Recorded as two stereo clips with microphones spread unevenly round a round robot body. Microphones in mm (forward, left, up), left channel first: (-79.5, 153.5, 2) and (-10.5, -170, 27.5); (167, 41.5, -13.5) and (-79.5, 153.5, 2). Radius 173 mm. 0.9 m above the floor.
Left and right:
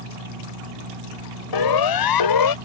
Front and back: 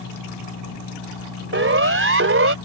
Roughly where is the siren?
Behind left.